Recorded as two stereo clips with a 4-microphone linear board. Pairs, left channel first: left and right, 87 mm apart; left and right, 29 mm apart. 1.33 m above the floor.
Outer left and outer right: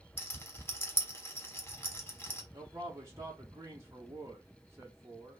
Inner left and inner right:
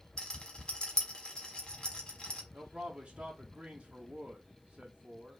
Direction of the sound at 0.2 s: 25° left (ahead or behind).